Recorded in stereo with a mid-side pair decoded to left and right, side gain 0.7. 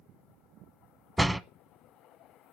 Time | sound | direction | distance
1.2 | a door slam | 5° right | 1.0 m